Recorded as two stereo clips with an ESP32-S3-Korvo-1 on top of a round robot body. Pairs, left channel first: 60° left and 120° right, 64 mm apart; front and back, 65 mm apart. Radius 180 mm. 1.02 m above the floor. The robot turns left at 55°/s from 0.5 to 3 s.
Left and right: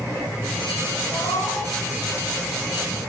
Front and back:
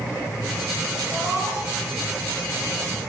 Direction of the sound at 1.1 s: 110° left.